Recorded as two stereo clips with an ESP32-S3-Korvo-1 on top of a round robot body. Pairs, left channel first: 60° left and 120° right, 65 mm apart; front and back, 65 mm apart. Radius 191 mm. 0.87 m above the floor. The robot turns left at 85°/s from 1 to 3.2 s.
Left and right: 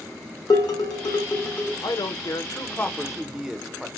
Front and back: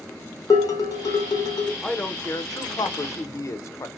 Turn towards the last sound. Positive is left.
turn(degrees=-40)